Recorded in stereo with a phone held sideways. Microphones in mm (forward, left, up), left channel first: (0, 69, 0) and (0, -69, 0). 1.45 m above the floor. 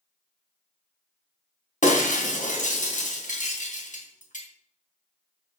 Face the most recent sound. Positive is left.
turn(degrees=65)  # may be behind; listen again after turning